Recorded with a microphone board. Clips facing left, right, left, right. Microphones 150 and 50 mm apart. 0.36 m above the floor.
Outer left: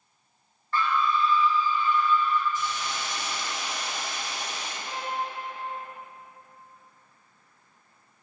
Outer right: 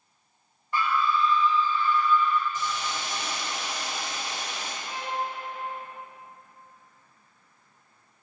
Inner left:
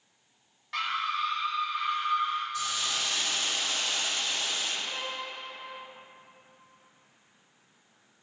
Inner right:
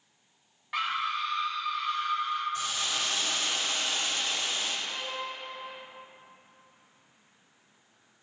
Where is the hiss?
40° right (ahead or behind), 2.5 m.